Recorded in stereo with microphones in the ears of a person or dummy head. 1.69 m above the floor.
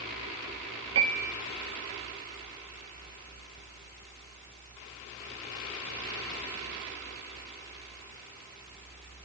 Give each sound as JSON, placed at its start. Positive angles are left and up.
{"t": 0.9, "sound": "a piano", "side_deg": -30, "distance_m": 1.3}